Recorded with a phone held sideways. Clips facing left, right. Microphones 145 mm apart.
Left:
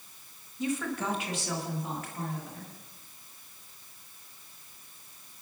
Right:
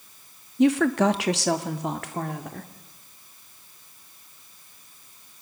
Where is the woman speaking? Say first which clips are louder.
Right 13 dB; 75° right (ahead or behind), 1.4 m; by 2.7 s 80° right, 2.5 m.